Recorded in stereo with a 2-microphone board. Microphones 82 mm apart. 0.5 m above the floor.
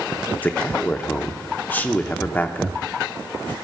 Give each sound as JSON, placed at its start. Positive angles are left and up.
{"t": 0.4, "sound": "a man speaking", "side_deg": 20, "distance_m": 0.8}